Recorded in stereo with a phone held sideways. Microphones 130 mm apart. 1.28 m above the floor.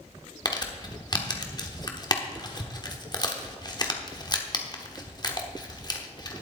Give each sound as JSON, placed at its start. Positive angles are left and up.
{"t": 0.5, "sound": "crumpling", "side_deg": 35, "distance_m": 1.1}